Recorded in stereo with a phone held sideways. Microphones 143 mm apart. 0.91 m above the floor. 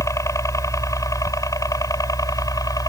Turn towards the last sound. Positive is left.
turn(degrees=25)  # may be behind; listen again after turning